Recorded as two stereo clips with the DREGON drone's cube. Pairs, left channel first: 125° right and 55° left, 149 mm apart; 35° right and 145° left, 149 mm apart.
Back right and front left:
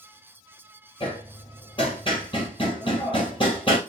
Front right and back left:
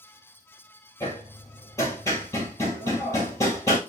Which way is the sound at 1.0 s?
95° right.